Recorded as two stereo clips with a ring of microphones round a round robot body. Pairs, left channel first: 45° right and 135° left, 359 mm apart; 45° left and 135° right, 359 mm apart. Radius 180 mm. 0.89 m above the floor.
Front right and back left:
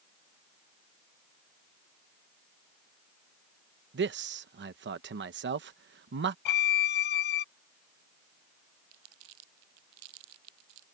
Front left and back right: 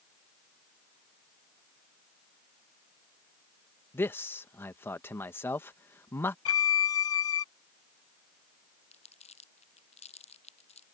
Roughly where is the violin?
Ahead.